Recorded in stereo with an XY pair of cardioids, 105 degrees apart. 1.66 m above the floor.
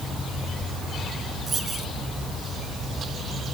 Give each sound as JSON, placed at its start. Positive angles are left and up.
{"t": 1.5, "sound": "a dropped coin", "azimuth_deg": -40}